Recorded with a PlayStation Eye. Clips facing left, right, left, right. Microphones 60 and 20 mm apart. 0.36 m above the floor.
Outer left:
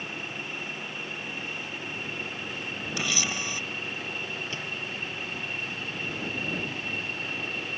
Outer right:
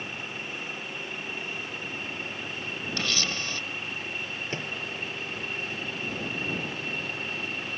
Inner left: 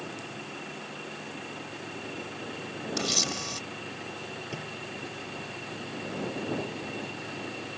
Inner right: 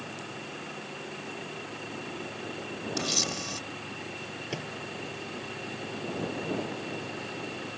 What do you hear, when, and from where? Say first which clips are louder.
3.0 s a camera shutter: outer left 1 dB, inner left 1 dB; 15° left (ahead or behind)
4.5 s a microwave: outer right 1 dB, inner right 1 dB; 35° right (ahead or behind)